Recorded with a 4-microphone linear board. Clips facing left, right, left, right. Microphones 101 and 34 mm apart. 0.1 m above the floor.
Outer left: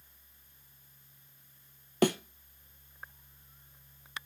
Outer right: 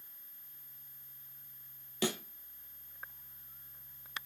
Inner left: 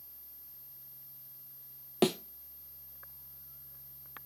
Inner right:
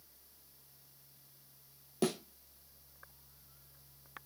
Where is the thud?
60° left (ahead or behind), 1.0 m.